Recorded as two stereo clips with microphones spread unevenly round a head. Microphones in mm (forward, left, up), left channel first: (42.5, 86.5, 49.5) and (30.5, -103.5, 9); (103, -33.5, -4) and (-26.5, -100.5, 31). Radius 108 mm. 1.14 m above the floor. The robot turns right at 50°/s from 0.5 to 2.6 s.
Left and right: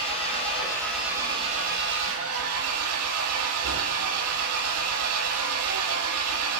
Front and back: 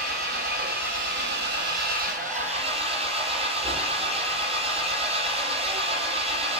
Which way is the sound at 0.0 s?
150° left.